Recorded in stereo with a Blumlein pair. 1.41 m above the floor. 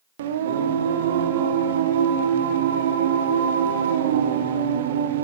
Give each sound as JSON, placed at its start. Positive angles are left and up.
{"t": 0.2, "sound": "singing", "azimuth_deg": -60, "distance_m": 0.6}